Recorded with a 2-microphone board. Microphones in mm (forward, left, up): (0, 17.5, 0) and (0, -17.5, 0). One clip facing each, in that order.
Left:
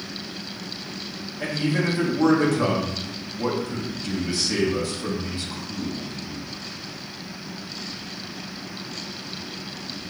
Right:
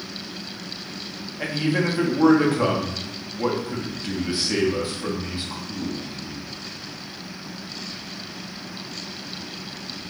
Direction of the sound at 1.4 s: 25° right (ahead or behind).